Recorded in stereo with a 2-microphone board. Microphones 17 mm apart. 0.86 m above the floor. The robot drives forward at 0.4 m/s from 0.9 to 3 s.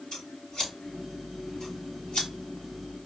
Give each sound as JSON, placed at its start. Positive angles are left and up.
{"t": 0.1, "sound": "scissors", "side_deg": 50, "distance_m": 3.0}